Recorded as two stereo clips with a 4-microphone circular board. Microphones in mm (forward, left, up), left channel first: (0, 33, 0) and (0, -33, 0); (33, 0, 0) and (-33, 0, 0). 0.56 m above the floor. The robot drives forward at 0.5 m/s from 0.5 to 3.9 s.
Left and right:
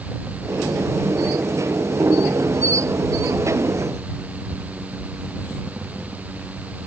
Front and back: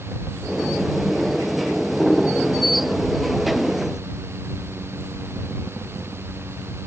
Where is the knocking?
No knocking in this recording.